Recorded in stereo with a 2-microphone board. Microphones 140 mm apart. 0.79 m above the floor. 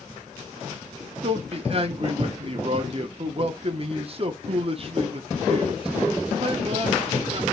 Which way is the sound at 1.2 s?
45° right (ahead or behind).